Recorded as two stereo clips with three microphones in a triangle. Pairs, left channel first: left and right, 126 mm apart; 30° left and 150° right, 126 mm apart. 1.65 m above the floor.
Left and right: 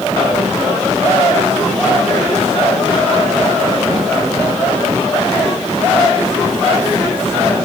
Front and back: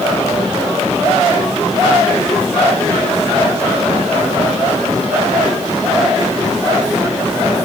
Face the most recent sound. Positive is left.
No sound to turn to.